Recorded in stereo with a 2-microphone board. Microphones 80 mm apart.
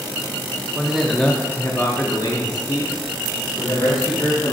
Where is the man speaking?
10° right (ahead or behind), 0.7 m; by 4.5 s 60° left (ahead or behind), 1.9 m.